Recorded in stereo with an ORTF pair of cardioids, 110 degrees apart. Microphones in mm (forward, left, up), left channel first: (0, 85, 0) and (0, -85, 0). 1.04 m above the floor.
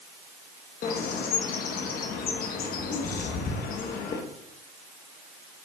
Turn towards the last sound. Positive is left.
turn(degrees=65)